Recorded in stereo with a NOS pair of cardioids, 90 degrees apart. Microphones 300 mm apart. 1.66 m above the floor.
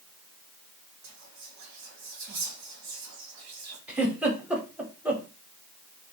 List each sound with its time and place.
1.0 s whispering: 65° right, 1.3 m
3.9 s a giggle: 5° right, 0.9 m